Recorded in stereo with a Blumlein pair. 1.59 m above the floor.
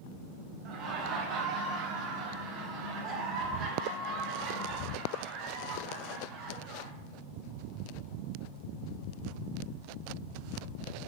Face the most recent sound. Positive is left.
turn(degrees=-30)